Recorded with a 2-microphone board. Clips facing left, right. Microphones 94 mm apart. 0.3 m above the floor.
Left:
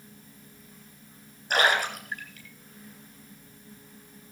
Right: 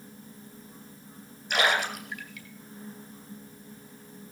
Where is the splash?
40° left (ahead or behind), 3.5 m.